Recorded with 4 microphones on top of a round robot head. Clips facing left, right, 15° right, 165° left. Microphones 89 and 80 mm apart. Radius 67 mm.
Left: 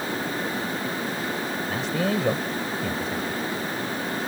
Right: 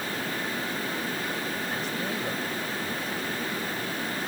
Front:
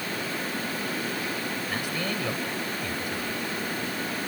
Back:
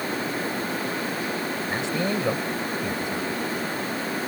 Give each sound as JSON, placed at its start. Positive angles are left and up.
{"t": 1.7, "sound": "a man speaking", "azimuth_deg": 100}